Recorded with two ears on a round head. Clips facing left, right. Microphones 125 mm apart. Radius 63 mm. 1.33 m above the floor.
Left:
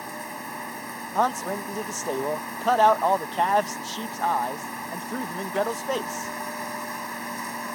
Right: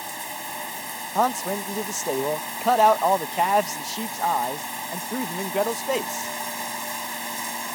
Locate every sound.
0.0 s running water: 30° right (ahead or behind)
1.1 s a man speaking: 10° right (ahead or behind)